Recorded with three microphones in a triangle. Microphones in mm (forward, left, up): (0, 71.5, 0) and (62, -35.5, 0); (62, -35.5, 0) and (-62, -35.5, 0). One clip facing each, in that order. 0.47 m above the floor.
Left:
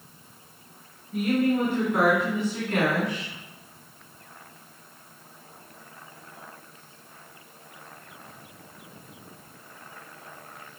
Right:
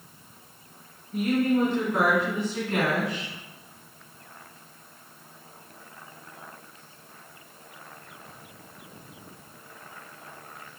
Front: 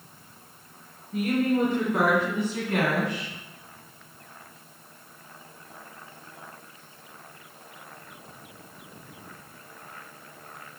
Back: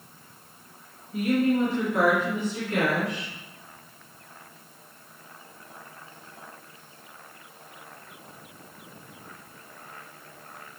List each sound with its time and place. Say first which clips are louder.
1.1 s a woman speaking: even, back 1 dB; 45° left, 4 m; by 3.3 s 20° left, 3 m